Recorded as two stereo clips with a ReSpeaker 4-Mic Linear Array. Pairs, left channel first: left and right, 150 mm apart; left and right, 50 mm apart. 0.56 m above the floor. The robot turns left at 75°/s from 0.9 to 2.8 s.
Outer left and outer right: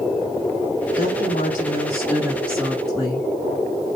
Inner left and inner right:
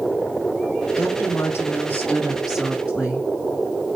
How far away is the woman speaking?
About 6.5 m.